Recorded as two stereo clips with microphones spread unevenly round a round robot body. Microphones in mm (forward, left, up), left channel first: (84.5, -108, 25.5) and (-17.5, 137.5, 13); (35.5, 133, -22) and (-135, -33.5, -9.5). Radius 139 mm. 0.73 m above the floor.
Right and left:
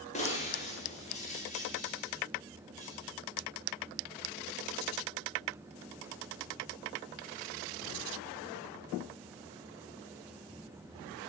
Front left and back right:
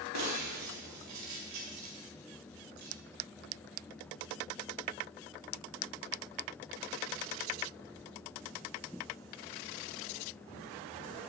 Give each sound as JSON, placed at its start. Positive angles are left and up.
{"t": 0.1, "sound": "breaking glass", "azimuth_deg": -135, "distance_m": 8.5}